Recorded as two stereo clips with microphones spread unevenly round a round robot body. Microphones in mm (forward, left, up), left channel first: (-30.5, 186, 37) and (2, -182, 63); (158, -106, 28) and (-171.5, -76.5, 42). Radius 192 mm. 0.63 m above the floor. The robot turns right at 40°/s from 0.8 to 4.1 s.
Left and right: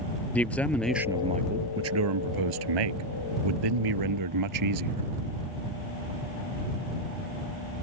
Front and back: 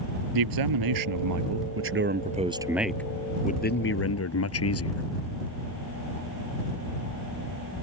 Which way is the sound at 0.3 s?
Straight behind.